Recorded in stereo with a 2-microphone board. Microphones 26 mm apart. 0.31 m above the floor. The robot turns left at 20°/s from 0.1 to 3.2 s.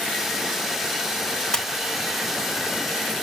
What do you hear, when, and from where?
1.5 s a splash: 30° left (ahead or behind), 1.4 m